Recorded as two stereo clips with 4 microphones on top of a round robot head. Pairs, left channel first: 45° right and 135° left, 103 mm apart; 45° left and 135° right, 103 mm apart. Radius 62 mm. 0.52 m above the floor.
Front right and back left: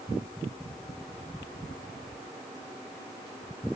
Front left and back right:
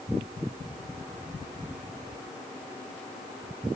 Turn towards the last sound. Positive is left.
No sound to turn to.